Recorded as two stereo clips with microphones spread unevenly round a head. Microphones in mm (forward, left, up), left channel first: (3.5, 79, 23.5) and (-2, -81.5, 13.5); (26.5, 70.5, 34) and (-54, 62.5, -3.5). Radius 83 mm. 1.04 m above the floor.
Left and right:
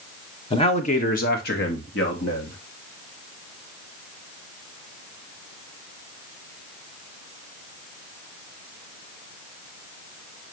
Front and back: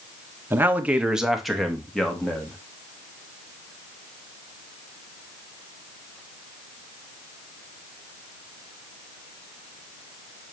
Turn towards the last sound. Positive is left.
turn(degrees=90)